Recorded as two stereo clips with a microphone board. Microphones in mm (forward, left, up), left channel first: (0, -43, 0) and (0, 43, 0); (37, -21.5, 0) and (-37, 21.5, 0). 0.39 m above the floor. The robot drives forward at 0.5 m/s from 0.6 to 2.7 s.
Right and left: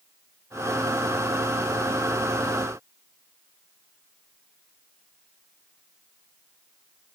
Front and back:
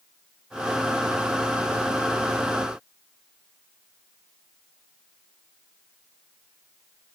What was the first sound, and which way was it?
Only background noise.